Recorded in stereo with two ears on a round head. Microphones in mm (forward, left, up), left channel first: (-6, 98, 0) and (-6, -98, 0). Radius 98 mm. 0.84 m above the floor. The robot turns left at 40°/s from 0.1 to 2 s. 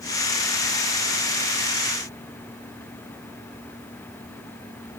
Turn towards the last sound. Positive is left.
No sound to turn to.